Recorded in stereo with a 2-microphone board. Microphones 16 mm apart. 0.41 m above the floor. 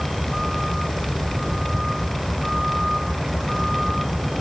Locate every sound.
0.0 s a vehicle: 15° right (ahead or behind); by 4.4 s 20° right (ahead or behind)